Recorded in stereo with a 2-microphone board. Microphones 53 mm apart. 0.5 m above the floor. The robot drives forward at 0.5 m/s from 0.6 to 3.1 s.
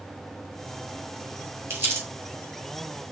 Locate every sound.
1.7 s crumpling: 40° right (ahead or behind), 2.5 m; by 2.1 s 45° right (ahead or behind), 2 m